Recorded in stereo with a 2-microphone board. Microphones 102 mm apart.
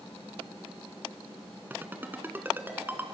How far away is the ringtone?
About 1.5 m.